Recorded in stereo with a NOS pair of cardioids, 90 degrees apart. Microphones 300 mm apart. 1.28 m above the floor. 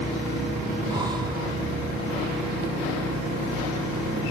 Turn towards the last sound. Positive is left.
turn(degrees=-15)